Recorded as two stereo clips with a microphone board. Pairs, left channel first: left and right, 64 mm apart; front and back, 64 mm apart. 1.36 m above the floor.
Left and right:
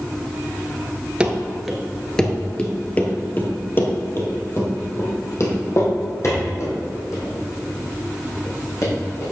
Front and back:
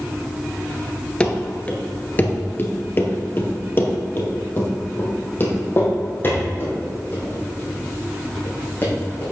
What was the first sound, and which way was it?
Running footsteps, 45° right.